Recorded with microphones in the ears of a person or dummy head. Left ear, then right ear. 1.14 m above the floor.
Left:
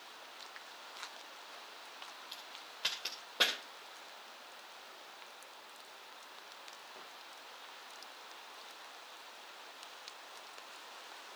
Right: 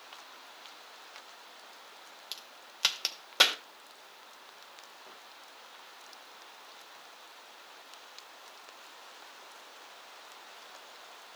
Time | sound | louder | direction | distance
2.3 | a crack | right 2 dB | 65° right (ahead or behind) | 1.7 m